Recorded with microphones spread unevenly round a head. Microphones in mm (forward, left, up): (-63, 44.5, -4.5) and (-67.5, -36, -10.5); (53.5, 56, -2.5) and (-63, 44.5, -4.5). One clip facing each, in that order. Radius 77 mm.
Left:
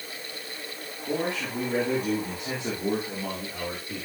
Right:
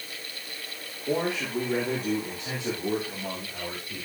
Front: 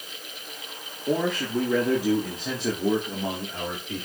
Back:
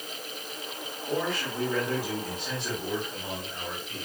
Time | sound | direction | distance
1.1 | a man speaking | 15° right | 2.5 m